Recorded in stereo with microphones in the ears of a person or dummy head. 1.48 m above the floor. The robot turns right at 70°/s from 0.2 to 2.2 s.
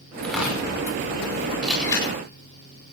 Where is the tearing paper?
5° left (ahead or behind), 6 m; by 0.6 s 20° right (ahead or behind), 6 m.